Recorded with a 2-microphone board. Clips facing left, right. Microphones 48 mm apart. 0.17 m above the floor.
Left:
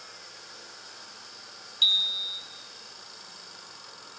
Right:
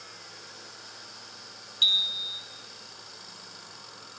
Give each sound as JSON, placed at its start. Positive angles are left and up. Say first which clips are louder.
{"t": 1.8, "sound": "a bicycle bell", "louder": "even", "side_deg": -5, "distance_m": 4.0}